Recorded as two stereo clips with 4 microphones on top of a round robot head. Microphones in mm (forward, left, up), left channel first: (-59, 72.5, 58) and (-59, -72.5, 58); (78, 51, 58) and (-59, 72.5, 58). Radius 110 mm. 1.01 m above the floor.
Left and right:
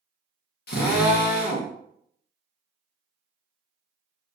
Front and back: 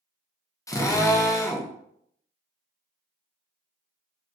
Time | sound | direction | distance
0.7 | a drill | 60° left | 0.8 m